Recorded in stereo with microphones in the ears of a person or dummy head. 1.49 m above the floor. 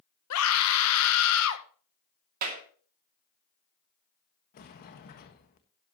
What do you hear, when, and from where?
0.3 s a scream: 85° left, 1.4 m
2.4 s a clap: 50° right (ahead or behind), 2.5 m
4.5 s a sliding door: 45° left (ahead or behind), 1.5 m